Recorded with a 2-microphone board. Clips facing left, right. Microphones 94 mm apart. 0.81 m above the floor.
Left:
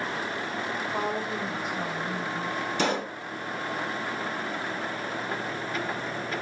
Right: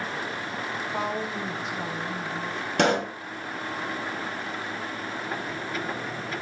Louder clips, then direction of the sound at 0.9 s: Right 1 dB; 10° right (ahead or behind).